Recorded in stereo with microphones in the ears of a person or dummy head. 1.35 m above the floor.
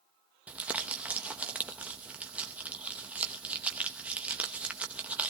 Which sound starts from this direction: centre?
Crumpling, at 0.5 s.